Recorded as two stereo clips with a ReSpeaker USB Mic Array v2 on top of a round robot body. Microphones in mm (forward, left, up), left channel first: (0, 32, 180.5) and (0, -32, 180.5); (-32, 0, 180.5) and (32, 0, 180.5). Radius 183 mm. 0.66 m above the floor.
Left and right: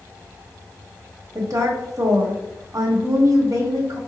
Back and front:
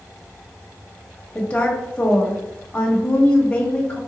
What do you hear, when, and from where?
1.4 s a woman speaking: 110° right, 1.2 m